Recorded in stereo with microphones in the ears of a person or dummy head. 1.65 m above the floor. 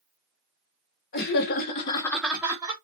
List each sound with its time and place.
1.1 s laughter: 50° left (ahead or behind), 1.1 m; by 2.7 s 20° right (ahead or behind), 1.0 m